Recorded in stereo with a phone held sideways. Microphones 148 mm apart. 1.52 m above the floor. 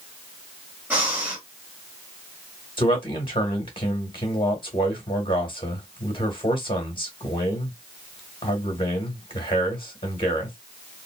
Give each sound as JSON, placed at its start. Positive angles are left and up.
{"t": 0.9, "sound": "breathing", "side_deg": -10, "distance_m": 1.6}
{"t": 2.8, "sound": "a man speaking", "side_deg": 35, "distance_m": 1.7}